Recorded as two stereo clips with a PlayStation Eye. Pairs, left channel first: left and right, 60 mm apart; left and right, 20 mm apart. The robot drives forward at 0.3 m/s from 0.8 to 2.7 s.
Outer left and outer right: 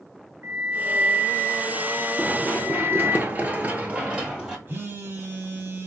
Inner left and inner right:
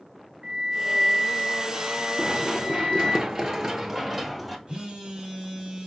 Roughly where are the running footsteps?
Right.